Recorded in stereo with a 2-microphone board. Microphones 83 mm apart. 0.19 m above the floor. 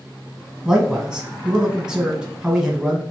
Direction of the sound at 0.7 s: 5° right (ahead or behind).